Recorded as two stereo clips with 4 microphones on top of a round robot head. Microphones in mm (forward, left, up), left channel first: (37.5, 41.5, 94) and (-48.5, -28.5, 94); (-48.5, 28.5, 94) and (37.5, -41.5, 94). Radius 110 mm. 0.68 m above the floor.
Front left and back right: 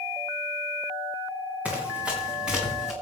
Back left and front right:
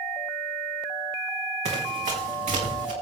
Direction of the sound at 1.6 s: 65° right.